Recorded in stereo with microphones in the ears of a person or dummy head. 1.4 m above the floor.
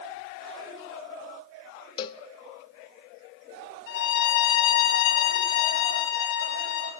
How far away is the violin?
About 4 m.